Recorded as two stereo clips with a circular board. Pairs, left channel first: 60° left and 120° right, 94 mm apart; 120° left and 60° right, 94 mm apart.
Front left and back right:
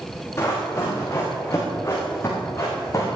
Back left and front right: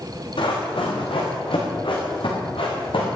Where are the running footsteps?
120° left, 6 m; by 3.1 s 115° left, 4.5 m.